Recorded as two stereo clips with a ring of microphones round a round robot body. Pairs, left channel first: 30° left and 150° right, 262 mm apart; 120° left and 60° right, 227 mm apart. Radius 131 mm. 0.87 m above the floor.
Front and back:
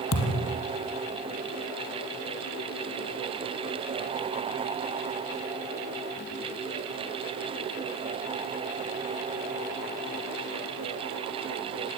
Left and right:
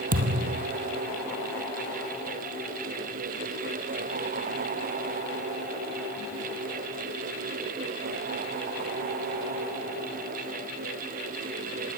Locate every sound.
0.1 s a thud: 10° right, 3 m